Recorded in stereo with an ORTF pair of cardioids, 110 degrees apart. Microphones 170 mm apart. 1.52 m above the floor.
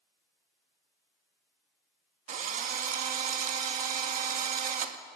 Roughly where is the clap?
I don't hear a clap.